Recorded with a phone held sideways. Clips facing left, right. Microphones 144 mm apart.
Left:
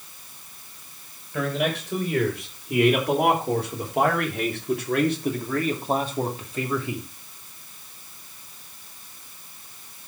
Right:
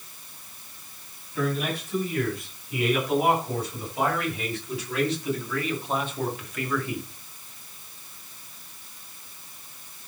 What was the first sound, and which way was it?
A man speaking, 85° left.